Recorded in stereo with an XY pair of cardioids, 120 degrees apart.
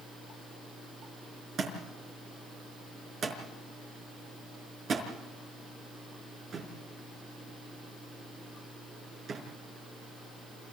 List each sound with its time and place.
1.6 s a thud: 45° right, 5 m